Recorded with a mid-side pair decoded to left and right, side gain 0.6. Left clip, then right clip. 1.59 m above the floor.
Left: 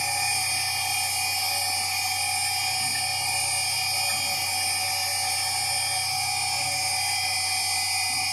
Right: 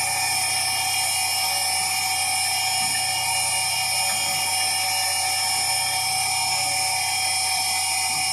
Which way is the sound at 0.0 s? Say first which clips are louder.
Right 2 dB; 40° right.